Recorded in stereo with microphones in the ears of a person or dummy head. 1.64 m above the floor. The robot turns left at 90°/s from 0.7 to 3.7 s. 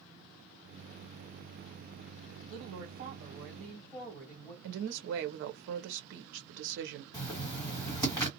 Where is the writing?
20° left (ahead or behind), 1.5 m.